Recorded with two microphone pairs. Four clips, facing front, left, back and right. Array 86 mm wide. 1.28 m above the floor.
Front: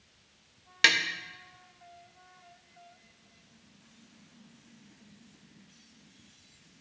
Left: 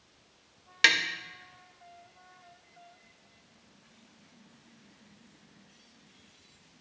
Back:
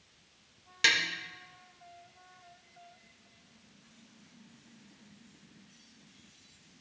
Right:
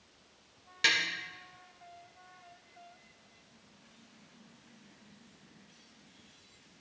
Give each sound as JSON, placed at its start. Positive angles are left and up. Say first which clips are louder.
{"t": 0.8, "sound": "tapping", "louder": "left 5 dB, front 3 dB", "azimuth_deg": 50, "distance_m": 0.7}